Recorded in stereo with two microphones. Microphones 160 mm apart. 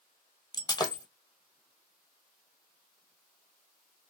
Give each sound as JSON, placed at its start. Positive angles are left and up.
{"t": 0.5, "sound": "breaking glass", "side_deg": 25, "distance_m": 1.2}